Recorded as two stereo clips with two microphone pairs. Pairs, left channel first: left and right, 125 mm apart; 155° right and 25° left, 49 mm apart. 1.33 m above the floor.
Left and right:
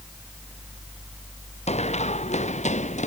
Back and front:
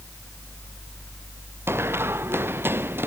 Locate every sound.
1.7 s running footsteps: 60° left; by 3.1 s 65° left